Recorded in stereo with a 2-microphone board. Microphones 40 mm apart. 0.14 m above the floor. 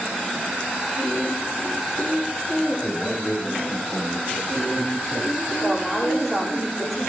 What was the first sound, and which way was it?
A man speaking, 20° left (ahead or behind).